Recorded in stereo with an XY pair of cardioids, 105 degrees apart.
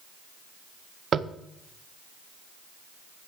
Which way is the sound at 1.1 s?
50° right.